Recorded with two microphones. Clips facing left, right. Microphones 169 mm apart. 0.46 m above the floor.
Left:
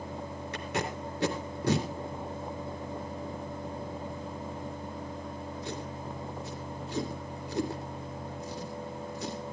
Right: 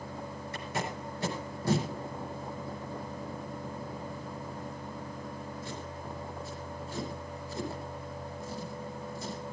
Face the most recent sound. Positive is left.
turn(degrees=75)  # may be behind; listen again after turning